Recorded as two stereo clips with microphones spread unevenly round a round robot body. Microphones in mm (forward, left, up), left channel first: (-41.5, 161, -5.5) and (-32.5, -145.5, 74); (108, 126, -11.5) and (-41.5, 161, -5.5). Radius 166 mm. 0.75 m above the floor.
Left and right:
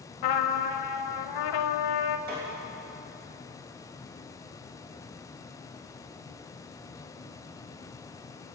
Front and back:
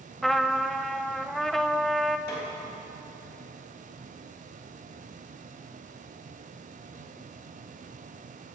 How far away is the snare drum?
About 3 m.